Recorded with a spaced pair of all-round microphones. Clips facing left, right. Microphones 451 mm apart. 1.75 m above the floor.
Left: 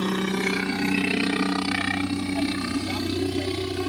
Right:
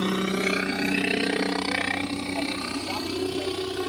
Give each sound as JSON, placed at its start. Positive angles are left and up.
{"t": 0.0, "sound": "a helicopter", "side_deg": 5}